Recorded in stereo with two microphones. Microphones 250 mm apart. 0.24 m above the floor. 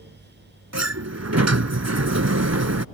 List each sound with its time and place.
0.7 s a sliding door: 75° right (ahead or behind)